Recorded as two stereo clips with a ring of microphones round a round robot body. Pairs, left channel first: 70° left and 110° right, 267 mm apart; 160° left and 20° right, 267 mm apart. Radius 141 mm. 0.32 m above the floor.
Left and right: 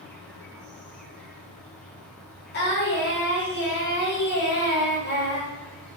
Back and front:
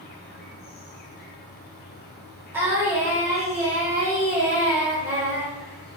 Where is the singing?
55° left, 1.2 m.